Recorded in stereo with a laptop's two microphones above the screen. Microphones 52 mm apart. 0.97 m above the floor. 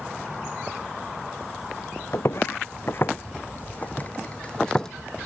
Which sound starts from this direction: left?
Footsteps, at 2.1 s.